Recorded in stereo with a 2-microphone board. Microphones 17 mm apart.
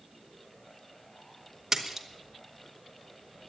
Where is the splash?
20° right (ahead or behind), 1.5 m.